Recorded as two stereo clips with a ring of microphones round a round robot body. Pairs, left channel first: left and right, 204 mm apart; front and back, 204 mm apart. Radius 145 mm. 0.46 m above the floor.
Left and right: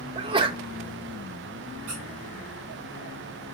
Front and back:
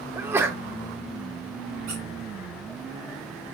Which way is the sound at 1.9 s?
130° right.